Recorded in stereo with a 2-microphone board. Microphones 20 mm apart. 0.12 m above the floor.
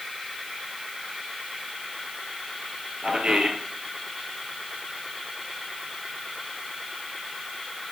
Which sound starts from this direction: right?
A man speaking, at 3.0 s.